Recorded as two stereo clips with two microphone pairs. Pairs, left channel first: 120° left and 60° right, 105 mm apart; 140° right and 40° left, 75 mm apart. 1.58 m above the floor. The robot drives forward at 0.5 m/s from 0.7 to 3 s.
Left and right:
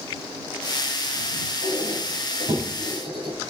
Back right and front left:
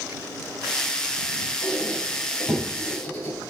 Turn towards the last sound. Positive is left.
turn(degrees=-85)